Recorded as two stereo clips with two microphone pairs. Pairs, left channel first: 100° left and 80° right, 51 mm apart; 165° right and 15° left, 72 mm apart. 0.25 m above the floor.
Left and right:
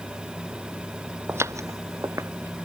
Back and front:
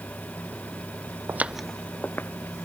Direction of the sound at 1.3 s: 35° right.